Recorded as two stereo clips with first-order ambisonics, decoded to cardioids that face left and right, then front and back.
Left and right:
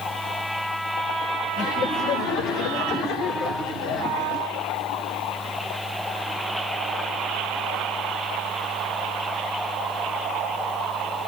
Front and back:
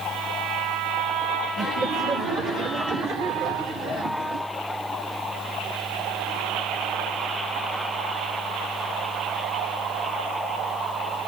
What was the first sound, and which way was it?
Laughter, 120° left.